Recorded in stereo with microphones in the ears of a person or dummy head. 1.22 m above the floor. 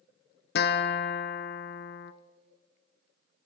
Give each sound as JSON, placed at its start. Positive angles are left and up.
{"t": 0.6, "sound": "a guitar", "side_deg": 50, "distance_m": 0.9}